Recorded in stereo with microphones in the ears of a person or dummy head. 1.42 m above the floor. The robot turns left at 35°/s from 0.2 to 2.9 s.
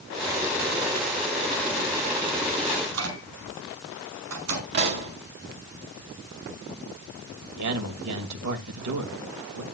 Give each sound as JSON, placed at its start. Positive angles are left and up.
{"t": 2.8, "sound": "a microwave", "side_deg": -85, "distance_m": 4.0}
{"t": 4.7, "sound": "a pop", "side_deg": -55, "distance_m": 2.5}
{"t": 7.5, "sound": "a man speaking", "side_deg": -90, "distance_m": 2.0}